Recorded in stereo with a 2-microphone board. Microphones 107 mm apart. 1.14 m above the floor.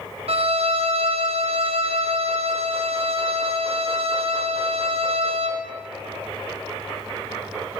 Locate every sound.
0.3 s a violin: 65° right (ahead or behind), 0.9 m